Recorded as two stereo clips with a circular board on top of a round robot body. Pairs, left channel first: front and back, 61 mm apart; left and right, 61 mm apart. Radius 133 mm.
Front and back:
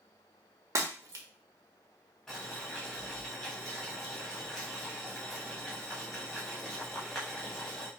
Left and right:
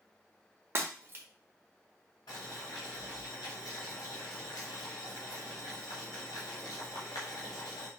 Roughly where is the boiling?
Left.